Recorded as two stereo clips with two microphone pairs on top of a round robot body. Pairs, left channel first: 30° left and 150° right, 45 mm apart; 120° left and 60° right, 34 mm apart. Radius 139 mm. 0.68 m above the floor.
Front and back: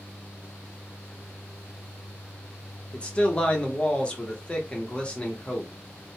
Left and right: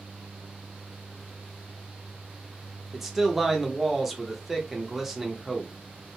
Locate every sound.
2.9 s a man speaking: 5° right, 1.0 m